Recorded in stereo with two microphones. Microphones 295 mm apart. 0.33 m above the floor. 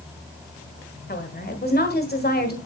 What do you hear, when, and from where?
1.1 s a woman speaking: 35° left (ahead or behind), 1.6 m